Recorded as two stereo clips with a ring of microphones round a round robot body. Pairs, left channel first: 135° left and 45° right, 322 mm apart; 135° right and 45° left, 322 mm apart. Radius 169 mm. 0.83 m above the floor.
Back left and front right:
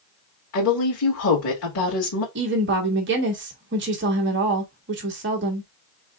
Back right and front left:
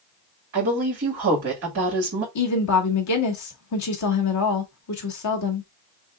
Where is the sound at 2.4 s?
100° right, 1.6 m.